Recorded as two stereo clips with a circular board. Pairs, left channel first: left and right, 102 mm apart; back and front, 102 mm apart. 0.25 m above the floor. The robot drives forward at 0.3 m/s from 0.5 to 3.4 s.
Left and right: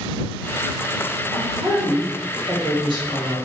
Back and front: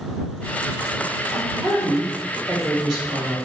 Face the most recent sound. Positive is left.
turn(degrees=-95)